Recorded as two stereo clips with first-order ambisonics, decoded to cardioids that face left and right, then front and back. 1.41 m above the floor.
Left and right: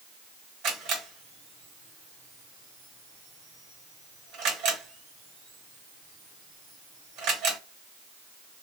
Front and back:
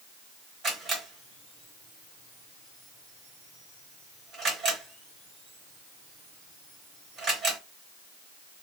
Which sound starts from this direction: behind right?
A camera shutter, at 0.6 s.